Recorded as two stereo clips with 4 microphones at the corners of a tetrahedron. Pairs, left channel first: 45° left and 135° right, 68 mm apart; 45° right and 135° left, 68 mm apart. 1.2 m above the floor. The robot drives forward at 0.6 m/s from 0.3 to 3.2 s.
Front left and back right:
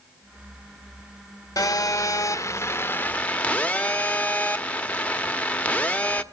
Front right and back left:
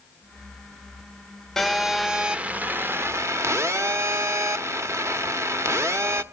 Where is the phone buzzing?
40° left, 1.1 m; by 6.2 s 110° left, 0.9 m.